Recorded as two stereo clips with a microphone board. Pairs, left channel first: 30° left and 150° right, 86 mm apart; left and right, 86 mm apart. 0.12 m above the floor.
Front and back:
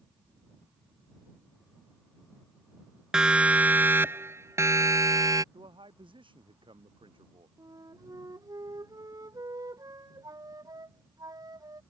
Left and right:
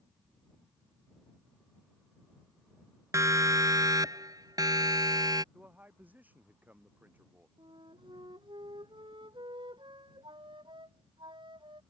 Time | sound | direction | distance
3.1 | a siren | 75° right | ?
5.5 | a man speaking | 160° right | ?
7.6 | a flute | 105° right | ?